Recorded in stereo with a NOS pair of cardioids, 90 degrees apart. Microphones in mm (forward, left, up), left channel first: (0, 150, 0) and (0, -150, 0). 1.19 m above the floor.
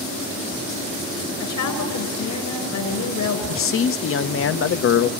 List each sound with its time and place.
1.4 s a woman speaking: 70° left, 5.5 m
3.5 s a man speaking: 45° left, 0.7 m